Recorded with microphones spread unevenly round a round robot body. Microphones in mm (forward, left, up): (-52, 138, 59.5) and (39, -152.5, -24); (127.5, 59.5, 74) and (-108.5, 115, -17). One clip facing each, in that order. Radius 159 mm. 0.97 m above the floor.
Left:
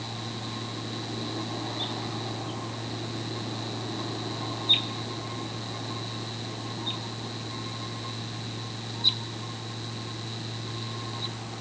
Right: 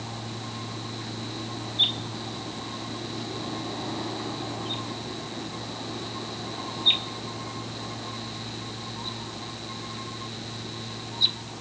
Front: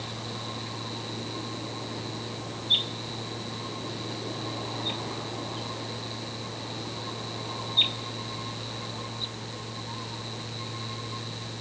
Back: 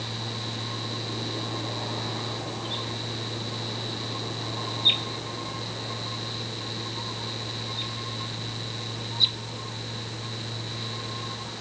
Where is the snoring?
I don't hear snoring.